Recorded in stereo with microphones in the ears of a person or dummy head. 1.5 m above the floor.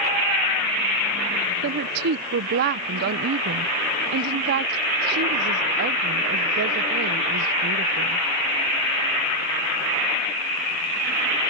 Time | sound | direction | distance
1.6 | a woman speaking | 45° right (ahead or behind) | ?